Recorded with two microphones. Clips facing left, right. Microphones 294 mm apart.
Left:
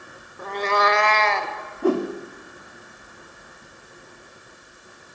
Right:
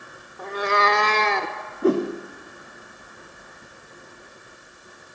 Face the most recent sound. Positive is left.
turn(degrees=-25)  # may be behind; listen again after turning